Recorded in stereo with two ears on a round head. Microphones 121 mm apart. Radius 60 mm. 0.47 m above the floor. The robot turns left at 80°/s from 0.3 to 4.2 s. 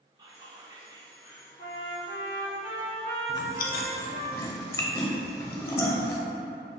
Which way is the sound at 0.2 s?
65° right.